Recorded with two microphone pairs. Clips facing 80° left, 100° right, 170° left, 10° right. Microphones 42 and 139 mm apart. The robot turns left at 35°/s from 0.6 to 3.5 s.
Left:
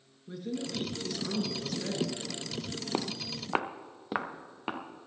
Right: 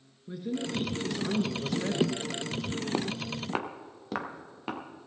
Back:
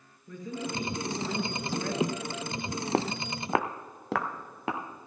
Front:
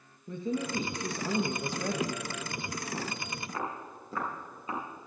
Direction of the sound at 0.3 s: 25° right.